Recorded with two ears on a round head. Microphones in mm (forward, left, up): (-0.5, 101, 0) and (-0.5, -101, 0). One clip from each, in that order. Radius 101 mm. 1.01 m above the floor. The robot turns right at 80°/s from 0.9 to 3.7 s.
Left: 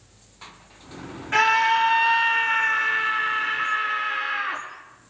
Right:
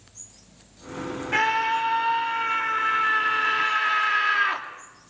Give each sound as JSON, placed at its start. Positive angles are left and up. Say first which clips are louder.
{"t": 1.3, "sound": "a scream", "louder": "left 4 dB", "azimuth_deg": 5, "distance_m": 2.5}